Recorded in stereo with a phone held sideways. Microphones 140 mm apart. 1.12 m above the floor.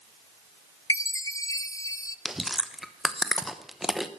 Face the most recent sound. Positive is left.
turn(degrees=0)  # may be behind; listen again after turning